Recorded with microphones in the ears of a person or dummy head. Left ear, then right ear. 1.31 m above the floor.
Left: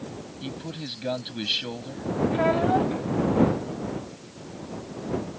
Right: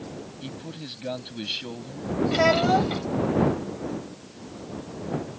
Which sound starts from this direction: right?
A child speaking, at 2.3 s.